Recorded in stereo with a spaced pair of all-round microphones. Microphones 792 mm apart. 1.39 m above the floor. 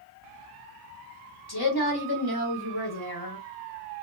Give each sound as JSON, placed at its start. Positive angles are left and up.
{"t": 1.5, "sound": "a woman speaking", "side_deg": 30, "distance_m": 1.3}